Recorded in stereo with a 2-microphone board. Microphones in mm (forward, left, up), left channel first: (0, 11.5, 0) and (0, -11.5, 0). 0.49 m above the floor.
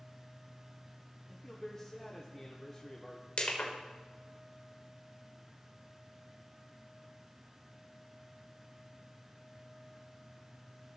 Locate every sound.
1.3 s a man speaking: 15° left (ahead or behind), 0.9 m
3.4 s crushing: 50° left (ahead or behind), 1.6 m